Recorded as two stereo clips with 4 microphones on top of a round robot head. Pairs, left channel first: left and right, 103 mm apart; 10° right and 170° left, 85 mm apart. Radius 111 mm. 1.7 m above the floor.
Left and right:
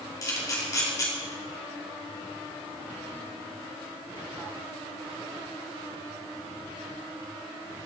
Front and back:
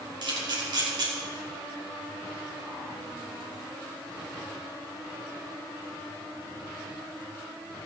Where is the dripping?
No dripping in this recording.